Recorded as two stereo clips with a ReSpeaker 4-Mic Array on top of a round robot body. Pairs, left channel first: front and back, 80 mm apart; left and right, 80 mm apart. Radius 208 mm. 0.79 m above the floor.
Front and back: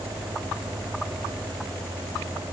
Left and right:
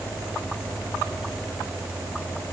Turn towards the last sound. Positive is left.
No sound to turn to.